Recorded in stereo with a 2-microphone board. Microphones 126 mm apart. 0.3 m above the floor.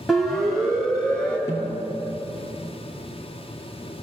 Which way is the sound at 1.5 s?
20° left (ahead or behind).